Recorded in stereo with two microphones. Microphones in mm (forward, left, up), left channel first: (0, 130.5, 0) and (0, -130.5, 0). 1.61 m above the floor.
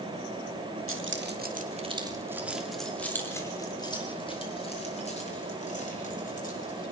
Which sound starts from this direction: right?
Keys jangling, at 0.9 s.